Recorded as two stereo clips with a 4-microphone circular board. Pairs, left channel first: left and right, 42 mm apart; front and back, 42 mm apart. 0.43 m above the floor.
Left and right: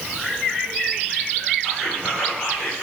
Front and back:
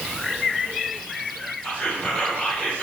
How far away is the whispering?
About 2.0 m.